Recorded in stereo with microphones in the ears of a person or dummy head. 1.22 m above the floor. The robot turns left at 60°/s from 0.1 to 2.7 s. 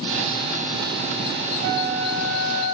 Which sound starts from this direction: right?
A flute, at 1.6 s.